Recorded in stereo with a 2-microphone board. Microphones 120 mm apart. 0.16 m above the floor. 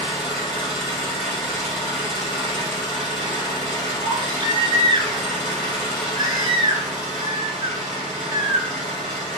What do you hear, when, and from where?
0.0 s an engine running: 5° left (ahead or behind), 1.8 m
4.0 s a baby crying: 35° right (ahead or behind), 0.7 m